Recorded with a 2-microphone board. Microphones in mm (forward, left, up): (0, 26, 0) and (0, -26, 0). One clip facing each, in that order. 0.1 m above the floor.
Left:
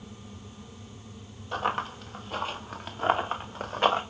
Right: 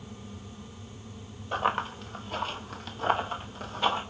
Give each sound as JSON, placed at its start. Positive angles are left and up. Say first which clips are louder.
{"t": 1.5, "sound": "running footsteps", "louder": "right 1 dB", "side_deg": -10, "distance_m": 1.4}